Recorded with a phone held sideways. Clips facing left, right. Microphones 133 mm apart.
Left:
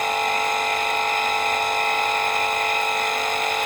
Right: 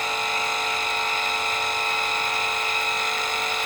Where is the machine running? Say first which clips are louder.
Left 5 dB; 50° left (ahead or behind), 0.7 m.